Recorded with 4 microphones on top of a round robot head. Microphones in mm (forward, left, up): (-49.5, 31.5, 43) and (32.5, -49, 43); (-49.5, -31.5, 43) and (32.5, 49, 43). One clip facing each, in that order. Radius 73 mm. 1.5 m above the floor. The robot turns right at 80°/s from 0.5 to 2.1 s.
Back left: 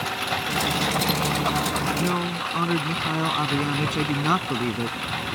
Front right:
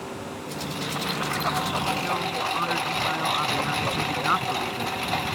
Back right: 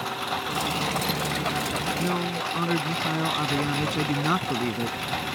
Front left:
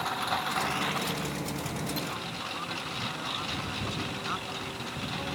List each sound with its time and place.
0.0 s a lawn mower: 135° left; by 5.3 s 95° right
2.0 s a man speaking: 175° right; by 5.3 s 165° right